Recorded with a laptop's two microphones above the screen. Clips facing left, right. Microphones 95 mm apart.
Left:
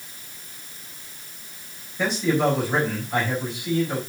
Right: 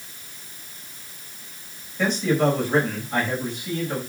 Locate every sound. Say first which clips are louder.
2.0 s a man speaking: right 1 dB; 5° left (ahead or behind), 4.5 m